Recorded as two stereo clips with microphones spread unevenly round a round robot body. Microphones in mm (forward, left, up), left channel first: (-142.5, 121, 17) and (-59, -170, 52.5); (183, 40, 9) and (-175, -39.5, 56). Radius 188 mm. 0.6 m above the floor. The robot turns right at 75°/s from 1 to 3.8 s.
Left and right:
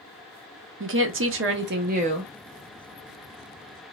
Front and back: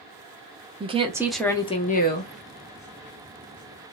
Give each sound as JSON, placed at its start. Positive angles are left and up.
{"t": 0.8, "sound": "a woman speaking", "azimuth_deg": -90, "distance_m": 0.7}